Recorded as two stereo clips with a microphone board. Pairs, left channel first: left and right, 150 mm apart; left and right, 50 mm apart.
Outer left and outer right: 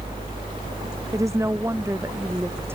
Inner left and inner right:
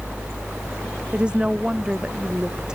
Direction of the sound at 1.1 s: 20° right (ahead or behind).